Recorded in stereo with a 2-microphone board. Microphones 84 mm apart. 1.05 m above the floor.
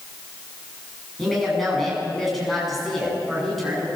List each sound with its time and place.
1.2 s a woman speaking: centre (ahead or behind), 8.5 m